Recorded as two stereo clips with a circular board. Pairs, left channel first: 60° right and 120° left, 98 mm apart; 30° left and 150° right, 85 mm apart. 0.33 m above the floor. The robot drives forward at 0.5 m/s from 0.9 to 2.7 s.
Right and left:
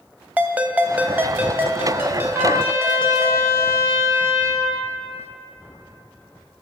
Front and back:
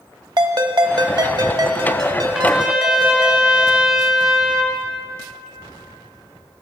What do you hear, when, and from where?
0.4 s a ringtone: 170° right, 0.7 m; by 3.3 s 175° right, 1.5 m
2.3 s a trumpet: 130° left, 1.3 m; by 4.8 s 140° left, 1.3 m